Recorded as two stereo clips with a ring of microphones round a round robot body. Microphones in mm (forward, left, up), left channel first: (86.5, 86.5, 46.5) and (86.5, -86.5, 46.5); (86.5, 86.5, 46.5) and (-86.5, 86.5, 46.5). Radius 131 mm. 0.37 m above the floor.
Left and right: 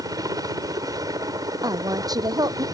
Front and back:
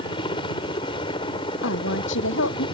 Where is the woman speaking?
20° right.